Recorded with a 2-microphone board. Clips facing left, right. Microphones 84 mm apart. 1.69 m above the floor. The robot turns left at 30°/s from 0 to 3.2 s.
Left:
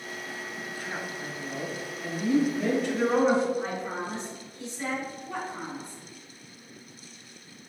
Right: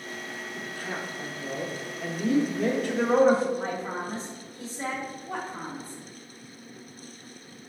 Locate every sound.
0.6 s a woman speaking: 60° right, 0.9 m; by 3.5 s 140° right, 0.9 m
3.6 s a woman speaking: 40° right (ahead or behind), 1.0 m